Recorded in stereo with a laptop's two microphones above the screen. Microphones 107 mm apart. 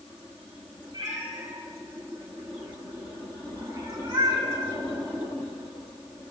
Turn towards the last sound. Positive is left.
turn(degrees=-50)  # may be behind; listen again after turning